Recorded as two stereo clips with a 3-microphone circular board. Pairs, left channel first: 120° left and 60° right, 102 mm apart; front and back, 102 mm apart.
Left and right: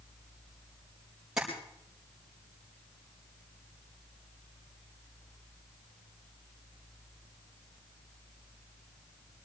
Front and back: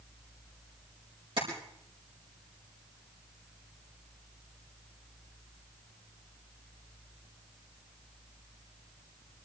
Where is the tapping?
145° right, 5 m.